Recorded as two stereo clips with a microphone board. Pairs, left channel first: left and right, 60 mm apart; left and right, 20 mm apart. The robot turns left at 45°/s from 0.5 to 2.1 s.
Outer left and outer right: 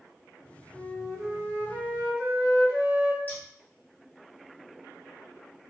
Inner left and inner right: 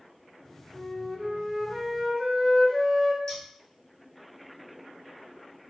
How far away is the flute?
About 1.3 m.